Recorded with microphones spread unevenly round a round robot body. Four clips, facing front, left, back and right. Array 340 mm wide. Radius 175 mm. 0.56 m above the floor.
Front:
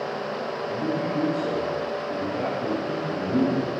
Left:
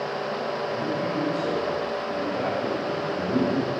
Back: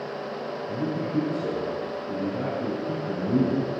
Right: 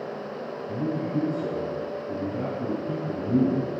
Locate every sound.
0.7 s a man speaking: 135° right, 6 m